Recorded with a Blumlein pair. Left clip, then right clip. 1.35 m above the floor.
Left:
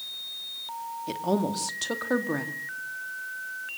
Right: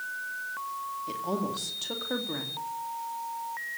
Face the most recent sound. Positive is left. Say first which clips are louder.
# left 6 dB
turn(degrees=70)